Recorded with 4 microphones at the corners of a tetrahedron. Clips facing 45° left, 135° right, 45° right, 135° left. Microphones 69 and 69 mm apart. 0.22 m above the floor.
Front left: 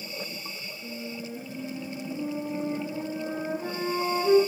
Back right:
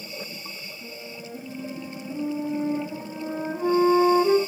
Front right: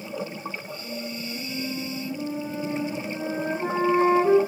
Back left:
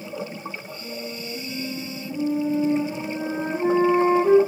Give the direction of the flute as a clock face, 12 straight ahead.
5 o'clock.